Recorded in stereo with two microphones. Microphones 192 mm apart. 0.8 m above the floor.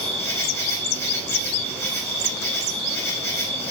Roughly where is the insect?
Centre.